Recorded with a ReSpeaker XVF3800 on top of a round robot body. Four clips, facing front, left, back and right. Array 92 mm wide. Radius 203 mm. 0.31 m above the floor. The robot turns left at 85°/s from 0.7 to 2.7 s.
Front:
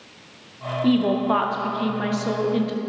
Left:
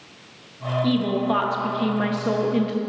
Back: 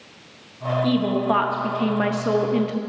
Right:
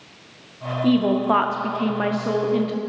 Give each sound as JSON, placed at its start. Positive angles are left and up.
{"t": 0.8, "sound": "a woman speaking", "azimuth_deg": -50, "distance_m": 1.1}